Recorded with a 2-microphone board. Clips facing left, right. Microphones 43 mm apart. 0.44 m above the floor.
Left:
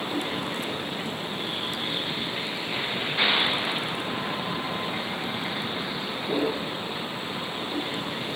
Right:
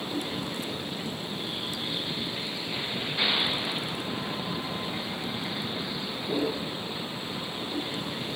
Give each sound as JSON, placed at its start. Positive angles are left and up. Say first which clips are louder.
{"t": 0.0, "sound": "a vehicle", "louder": "left 3 dB", "side_deg": 25}